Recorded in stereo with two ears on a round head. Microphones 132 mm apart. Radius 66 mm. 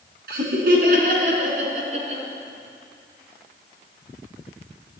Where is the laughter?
75° right (ahead or behind), 5 m; by 2.2 s 45° right (ahead or behind), 5 m.